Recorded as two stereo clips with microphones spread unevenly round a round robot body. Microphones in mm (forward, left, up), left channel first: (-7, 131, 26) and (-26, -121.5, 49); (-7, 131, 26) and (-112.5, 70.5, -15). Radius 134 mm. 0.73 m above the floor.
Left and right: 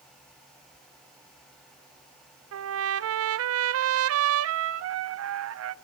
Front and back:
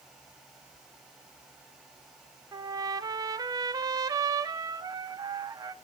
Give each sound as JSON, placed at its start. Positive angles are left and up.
{"t": 2.5, "sound": "a trumpet", "azimuth_deg": -110, "distance_m": 0.7}